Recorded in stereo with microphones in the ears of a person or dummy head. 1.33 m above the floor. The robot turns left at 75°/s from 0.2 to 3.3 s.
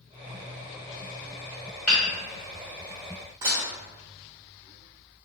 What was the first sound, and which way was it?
Hammering, 5° right (ahead or behind).